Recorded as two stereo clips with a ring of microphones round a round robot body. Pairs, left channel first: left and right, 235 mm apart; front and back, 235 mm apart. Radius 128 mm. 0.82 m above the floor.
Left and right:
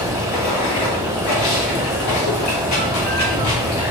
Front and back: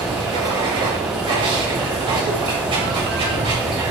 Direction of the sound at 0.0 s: 110° left.